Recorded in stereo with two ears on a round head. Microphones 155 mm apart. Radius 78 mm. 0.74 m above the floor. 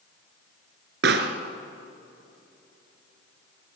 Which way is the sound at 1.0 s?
70° right (ahead or behind).